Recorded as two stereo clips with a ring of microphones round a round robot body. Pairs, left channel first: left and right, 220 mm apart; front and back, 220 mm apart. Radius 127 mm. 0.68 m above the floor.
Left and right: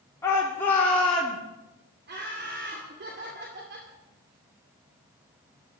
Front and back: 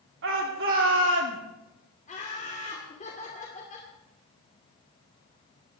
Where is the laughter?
55° right, 2.5 m.